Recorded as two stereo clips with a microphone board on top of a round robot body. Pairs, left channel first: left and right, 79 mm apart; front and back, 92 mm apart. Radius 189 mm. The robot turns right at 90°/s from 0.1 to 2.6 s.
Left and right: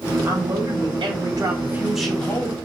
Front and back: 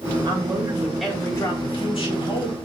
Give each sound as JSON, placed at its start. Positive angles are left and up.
{"t": 0.2, "sound": "a man speaking", "azimuth_deg": -160, "distance_m": 3.5}